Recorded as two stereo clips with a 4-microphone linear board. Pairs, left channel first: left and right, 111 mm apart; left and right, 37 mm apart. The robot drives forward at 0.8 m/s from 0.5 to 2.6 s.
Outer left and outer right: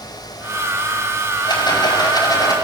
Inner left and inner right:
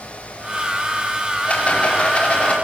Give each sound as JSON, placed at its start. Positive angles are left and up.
{"t": 1.4, "sound": "a rattle", "side_deg": 40, "distance_m": 5.5}